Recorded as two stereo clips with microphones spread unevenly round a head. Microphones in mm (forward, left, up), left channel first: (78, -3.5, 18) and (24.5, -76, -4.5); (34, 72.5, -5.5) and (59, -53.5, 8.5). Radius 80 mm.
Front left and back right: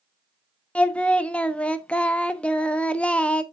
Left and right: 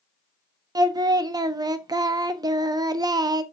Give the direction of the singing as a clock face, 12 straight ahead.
1 o'clock.